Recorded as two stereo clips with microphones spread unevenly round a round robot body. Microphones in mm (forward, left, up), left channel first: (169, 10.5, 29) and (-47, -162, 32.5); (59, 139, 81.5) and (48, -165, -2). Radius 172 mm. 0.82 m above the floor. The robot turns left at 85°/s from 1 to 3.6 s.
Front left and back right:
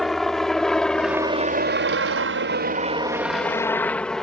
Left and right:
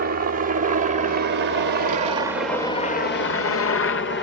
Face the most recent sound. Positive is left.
turn(degrees=125)